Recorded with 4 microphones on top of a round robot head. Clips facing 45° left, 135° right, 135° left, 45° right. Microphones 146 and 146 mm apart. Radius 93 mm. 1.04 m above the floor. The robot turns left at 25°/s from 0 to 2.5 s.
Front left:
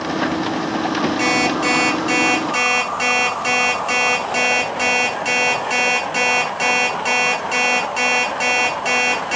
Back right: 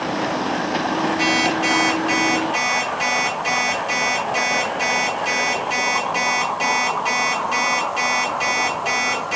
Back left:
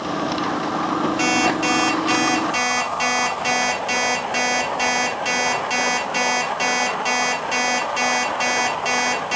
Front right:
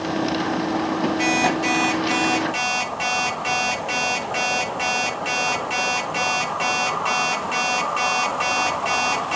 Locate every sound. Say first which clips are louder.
1.2 s an alarm clock: front left 2 dB, back left 1 dB; 115° left, 9.5 m; by 9.4 s 85° left, 9.5 m